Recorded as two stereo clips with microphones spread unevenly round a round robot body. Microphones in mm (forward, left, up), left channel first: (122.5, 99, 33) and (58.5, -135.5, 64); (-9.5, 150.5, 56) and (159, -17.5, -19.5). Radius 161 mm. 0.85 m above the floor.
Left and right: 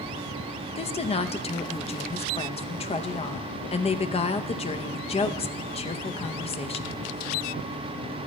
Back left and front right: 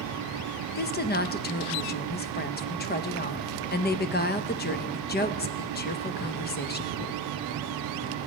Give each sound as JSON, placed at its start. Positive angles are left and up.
{"t": 0.8, "sound": "a woman speaking", "azimuth_deg": 85, "distance_m": 0.7}